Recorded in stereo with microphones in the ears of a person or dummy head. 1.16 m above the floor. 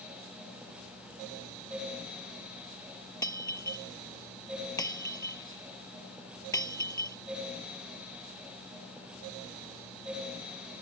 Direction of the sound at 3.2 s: 20° left (ahead or behind).